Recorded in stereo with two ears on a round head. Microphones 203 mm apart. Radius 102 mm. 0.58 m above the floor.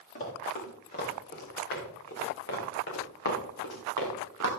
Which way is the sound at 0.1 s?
35° left (ahead or behind).